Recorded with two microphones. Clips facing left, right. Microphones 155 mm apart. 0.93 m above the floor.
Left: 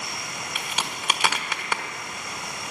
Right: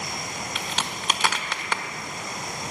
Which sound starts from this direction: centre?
A crack, at 0.6 s.